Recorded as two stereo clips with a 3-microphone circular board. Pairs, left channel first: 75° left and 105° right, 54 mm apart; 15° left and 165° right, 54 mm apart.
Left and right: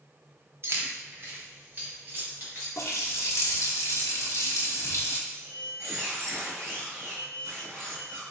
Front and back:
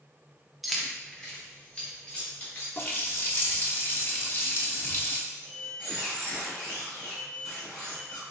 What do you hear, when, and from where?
0.6 s keys jangling: 80° right, 0.7 m; by 2.7 s 50° right, 3 m
2.8 s a running tap: 60° left, 0.9 m
5.3 s a squeak: 60° right, 2 m